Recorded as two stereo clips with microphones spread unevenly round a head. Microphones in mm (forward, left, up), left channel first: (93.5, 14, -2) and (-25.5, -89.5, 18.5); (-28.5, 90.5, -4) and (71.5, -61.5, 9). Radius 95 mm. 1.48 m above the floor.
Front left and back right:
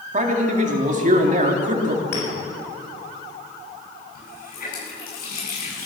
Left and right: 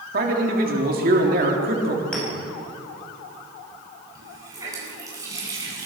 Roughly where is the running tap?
Ahead.